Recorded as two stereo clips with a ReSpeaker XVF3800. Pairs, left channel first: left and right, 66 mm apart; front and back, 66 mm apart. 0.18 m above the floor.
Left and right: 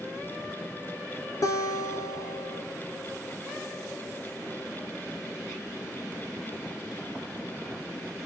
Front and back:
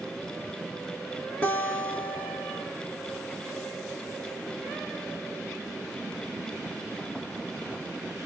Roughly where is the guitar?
Left.